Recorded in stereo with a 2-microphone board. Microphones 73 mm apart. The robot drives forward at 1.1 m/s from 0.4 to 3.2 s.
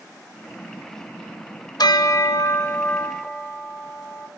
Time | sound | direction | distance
1.8 | a bell | 70° left (ahead or behind) | 0.8 m